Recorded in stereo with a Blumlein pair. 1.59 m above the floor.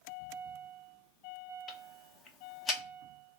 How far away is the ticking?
About 0.5 m.